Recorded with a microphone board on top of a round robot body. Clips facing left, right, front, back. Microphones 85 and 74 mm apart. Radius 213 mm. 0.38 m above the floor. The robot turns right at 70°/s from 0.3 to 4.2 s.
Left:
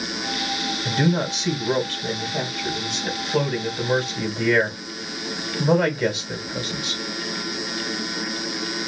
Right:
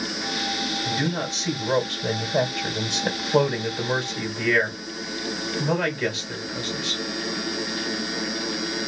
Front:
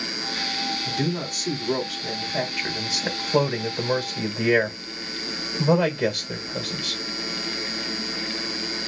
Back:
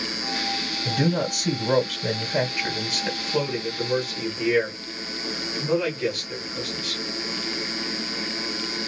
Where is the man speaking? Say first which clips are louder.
Left 6 dB, back 6 dB; 140° left, 3 m; by 7.0 s 15° left, 3 m.